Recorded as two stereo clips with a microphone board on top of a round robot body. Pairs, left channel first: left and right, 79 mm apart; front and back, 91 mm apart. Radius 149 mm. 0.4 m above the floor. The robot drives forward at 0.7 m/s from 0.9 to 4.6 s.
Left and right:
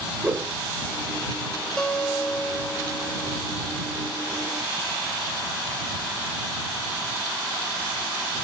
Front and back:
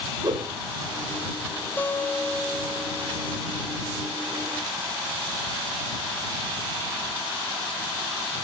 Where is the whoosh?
155° right, 1.7 m.